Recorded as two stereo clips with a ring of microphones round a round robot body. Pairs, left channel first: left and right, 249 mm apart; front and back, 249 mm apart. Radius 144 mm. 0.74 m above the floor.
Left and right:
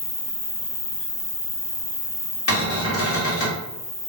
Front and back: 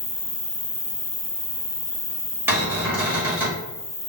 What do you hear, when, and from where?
0.0 s an insect: 65° left, 1.9 m
2.5 s a cupboard door: 100° left, 1.4 m